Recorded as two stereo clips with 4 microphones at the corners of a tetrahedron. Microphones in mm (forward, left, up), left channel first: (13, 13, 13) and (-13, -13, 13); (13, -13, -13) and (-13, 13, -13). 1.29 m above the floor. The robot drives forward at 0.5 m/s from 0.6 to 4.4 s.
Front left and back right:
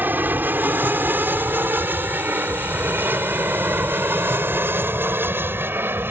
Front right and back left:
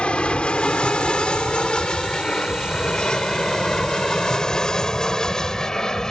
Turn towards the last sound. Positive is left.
turn(degrees=-120)